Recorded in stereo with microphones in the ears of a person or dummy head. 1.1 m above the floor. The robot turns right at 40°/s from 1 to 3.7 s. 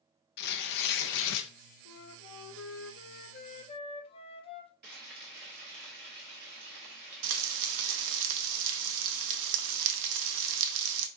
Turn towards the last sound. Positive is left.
turn(degrees=-70)  # may be behind; listen again after turning